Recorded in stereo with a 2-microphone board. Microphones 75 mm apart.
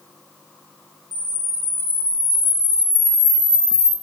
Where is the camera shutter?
35° left (ahead or behind), 2 m.